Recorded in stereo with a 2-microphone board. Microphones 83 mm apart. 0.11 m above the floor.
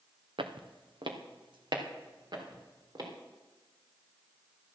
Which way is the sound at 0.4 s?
85° right.